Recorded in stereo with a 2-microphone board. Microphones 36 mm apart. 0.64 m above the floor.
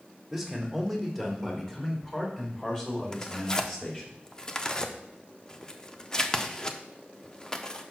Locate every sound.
0.3 s a man speaking: centre (ahead or behind), 1.9 m; by 4.1 s 25° left (ahead or behind), 4 m
3.1 s tearing paper: 20° left (ahead or behind), 0.6 m